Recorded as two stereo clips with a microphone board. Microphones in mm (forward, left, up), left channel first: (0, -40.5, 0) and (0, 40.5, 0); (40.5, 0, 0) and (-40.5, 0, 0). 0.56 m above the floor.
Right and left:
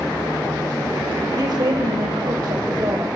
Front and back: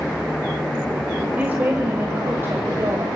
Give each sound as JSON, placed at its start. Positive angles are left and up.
{"t": 1.4, "sound": "a woman speaking", "azimuth_deg": 115, "distance_m": 2.5}